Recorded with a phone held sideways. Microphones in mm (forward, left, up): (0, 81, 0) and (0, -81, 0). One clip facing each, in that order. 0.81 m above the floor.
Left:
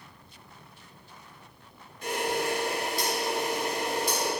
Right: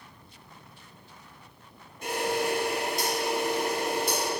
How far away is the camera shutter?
About 1.3 m.